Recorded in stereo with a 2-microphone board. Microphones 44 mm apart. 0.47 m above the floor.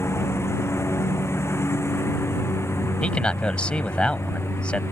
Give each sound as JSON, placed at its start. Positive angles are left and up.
{"t": 0.0, "sound": "a lawn mower", "side_deg": 90}
{"t": 3.0, "sound": "a man speaking", "side_deg": 25}